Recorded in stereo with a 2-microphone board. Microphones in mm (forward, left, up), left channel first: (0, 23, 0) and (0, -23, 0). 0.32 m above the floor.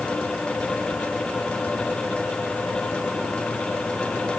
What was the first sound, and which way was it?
Only background noise.